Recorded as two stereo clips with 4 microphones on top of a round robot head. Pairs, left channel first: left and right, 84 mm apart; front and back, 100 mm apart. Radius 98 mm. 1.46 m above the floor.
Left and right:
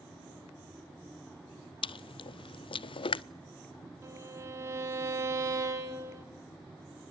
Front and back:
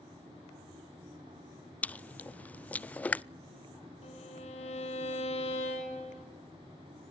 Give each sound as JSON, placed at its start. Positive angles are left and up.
{"t": 1.8, "sound": "chewing", "azimuth_deg": 80, "distance_m": 0.5}
{"t": 4.0, "sound": "a violin", "azimuth_deg": -35, "distance_m": 4.0}